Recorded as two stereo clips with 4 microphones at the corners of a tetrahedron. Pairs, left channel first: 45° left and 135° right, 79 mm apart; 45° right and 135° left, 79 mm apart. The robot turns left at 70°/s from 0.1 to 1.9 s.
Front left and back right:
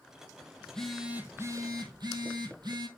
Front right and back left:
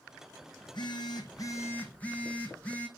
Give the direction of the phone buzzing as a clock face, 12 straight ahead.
1 o'clock.